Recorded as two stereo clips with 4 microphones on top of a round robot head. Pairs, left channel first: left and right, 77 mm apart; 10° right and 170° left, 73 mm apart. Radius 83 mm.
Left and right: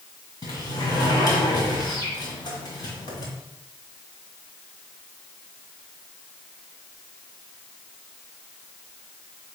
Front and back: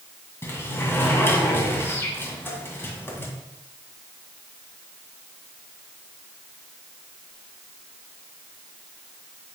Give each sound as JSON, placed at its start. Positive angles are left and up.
{"t": 0.4, "sound": "a sliding door", "azimuth_deg": 50, "distance_m": 1.9}